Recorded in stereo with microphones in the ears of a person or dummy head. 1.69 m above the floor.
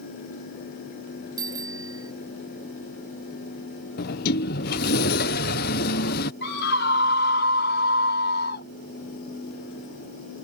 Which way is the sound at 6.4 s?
60° left (ahead or behind).